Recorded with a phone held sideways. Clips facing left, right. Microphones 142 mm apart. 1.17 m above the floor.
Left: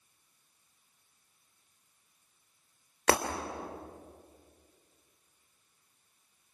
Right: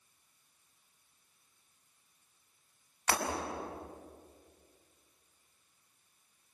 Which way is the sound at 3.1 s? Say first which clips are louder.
Left 6 dB; 85° left.